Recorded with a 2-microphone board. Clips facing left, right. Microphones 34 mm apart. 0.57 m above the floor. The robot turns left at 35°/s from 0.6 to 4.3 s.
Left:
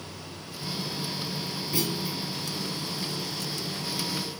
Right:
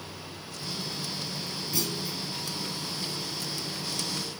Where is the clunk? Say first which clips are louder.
Left 3 dB; 25° left (ahead or behind), 5 m; by 2.2 s 10° left (ahead or behind), 5 m.